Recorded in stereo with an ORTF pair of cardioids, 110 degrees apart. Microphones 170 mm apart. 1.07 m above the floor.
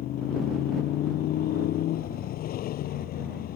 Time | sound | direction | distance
0.0 | a motorcycle | 70° left | ?